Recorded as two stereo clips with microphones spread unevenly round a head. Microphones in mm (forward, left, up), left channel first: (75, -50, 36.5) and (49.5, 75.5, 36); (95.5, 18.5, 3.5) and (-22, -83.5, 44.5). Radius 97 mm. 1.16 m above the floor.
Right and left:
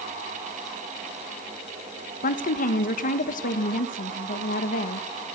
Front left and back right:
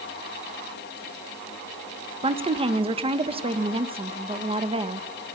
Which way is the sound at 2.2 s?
80° right.